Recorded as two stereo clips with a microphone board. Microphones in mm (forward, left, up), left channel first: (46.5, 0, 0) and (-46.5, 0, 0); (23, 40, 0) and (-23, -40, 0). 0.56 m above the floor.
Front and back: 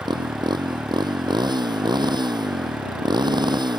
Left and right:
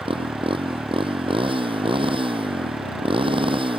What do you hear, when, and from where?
0.0 s a motorcycle: 140° right